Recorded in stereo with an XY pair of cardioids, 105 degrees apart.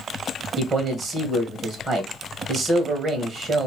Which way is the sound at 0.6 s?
45° right.